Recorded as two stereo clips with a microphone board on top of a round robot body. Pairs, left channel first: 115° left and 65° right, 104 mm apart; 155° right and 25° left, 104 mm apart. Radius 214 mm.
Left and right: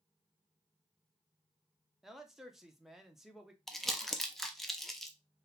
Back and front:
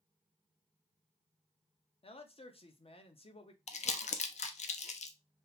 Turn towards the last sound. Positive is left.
turn(degrees=-160)